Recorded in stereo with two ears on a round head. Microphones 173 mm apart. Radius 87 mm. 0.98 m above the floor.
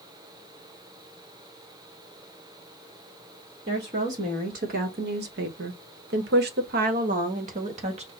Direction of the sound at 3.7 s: 35° right (ahead or behind).